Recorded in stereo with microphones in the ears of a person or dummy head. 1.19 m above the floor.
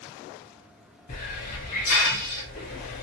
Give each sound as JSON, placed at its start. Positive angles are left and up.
{"t": 1.1, "sound": "a hiss", "side_deg": 40, "distance_m": 1.0}